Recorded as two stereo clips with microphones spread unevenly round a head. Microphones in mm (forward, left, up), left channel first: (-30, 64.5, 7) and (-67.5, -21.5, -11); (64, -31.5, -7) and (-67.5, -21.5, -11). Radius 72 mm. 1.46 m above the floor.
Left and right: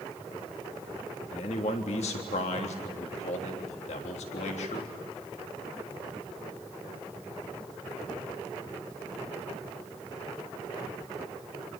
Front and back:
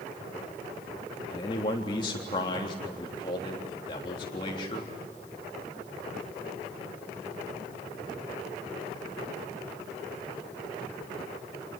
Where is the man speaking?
55° left, 3.5 m.